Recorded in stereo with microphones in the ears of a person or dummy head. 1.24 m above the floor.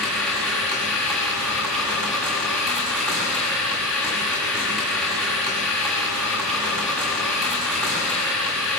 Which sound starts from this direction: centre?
A machine running, at 0.0 s.